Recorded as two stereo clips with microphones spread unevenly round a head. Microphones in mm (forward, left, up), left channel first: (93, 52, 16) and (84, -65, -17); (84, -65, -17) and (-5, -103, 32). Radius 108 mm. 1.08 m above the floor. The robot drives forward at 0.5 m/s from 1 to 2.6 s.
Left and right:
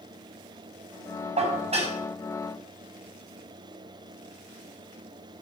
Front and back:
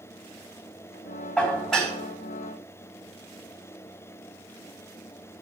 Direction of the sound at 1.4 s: 60° right.